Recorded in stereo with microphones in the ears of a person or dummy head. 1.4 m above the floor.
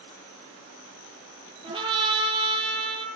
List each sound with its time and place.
1.6 s a trumpet: 25° right (ahead or behind), 9 m